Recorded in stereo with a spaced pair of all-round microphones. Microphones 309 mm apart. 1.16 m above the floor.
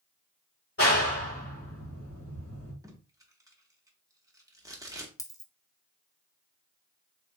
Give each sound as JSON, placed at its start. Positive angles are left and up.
{"t": 0.8, "sound": "a clap", "side_deg": 45, "distance_m": 1.6}
{"t": 2.8, "sound": "tape being pulled", "side_deg": -10, "distance_m": 0.9}
{"t": 5.2, "sound": "a dropped coin", "side_deg": 10, "distance_m": 0.6}